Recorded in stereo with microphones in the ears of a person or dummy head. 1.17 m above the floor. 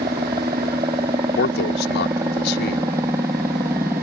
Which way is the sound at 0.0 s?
15° right (ahead or behind).